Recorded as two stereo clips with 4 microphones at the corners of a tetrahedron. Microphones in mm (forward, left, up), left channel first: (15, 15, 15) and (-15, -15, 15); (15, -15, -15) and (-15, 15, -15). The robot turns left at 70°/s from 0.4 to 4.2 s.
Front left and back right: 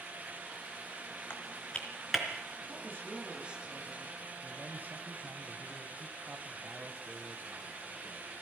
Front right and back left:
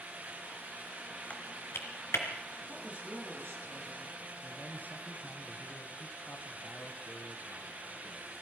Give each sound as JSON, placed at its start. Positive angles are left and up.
{"t": 1.3, "sound": "typing on a keyboard", "azimuth_deg": 10, "distance_m": 3.5}
{"t": 2.7, "sound": "a woman speaking", "azimuth_deg": -140, "distance_m": 6.0}
{"t": 4.4, "sound": "a man speaking", "azimuth_deg": -90, "distance_m": 2.5}